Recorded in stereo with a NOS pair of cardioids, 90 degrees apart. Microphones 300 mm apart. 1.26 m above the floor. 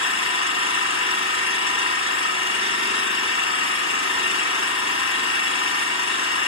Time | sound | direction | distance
0.0 | an engine running | 50° left | 3 m